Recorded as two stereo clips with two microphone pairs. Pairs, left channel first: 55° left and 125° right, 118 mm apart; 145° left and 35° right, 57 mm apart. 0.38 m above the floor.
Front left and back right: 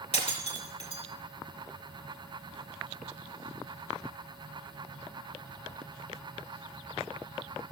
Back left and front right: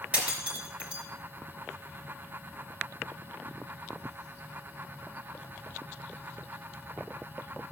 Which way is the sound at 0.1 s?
30° left.